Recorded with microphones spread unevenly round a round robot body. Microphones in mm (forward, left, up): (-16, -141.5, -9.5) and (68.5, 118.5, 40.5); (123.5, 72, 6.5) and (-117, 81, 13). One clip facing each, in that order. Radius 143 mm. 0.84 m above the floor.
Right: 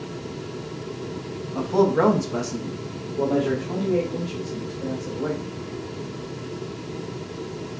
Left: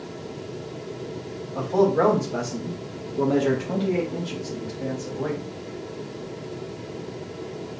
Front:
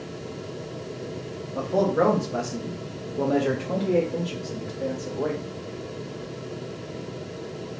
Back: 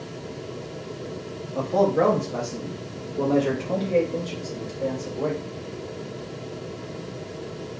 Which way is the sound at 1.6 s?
85° right.